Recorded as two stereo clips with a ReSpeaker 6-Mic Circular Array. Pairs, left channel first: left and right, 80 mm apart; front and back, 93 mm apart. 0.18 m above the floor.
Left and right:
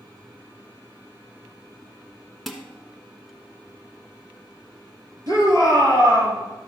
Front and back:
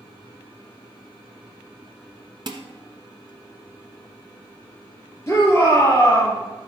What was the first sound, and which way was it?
Dishes clattering, 175° right.